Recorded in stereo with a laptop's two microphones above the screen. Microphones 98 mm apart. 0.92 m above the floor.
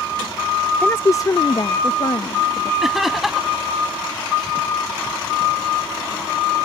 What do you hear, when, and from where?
0.8 s a woman speaking: 15° left (ahead or behind); by 2.7 s 60° left (ahead or behind)
2.8 s laughter: centre (ahead or behind)